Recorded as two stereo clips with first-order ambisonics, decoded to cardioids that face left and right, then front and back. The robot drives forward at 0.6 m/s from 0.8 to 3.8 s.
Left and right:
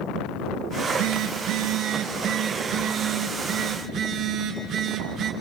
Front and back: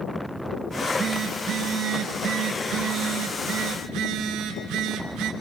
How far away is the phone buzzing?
About 1.4 m.